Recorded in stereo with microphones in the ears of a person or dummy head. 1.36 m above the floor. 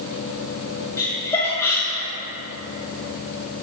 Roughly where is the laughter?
Left.